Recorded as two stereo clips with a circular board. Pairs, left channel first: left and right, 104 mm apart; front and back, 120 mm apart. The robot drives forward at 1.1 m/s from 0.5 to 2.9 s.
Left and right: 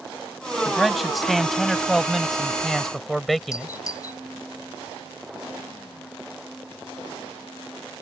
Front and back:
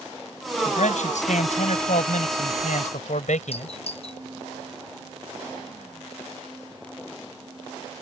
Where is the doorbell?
30° left.